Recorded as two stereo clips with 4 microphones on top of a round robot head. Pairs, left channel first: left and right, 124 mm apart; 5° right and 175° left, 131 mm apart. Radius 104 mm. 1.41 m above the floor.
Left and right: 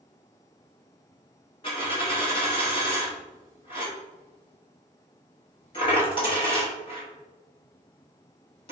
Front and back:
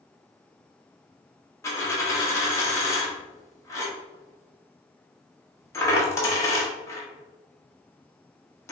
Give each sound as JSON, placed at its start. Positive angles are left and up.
{"t": 1.6, "sound": "a dropped coin", "azimuth_deg": 50, "distance_m": 0.9}